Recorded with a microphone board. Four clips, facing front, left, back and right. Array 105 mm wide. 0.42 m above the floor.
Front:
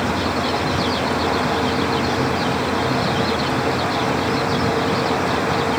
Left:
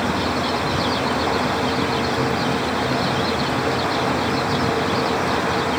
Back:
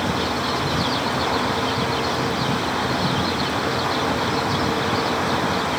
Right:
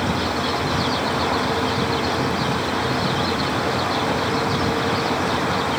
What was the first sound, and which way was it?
Only background noise.